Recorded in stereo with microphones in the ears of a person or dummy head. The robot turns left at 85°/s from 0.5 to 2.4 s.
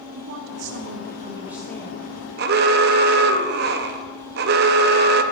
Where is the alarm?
40° right (ahead or behind), 0.6 m.